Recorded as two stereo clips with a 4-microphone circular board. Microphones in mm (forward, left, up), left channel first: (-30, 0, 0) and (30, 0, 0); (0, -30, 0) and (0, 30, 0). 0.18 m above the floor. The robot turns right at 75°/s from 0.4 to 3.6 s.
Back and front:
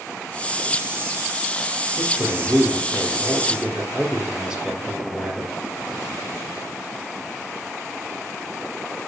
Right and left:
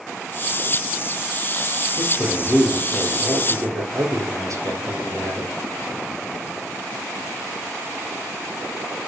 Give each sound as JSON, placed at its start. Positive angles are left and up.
{"t": 2.0, "sound": "a man speaking", "azimuth_deg": -45, "distance_m": 3.5}